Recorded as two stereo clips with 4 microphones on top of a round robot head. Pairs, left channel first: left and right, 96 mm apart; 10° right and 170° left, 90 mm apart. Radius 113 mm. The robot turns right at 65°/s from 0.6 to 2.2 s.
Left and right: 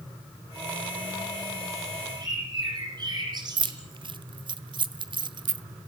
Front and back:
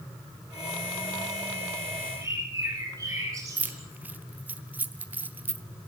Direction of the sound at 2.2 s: 135° right.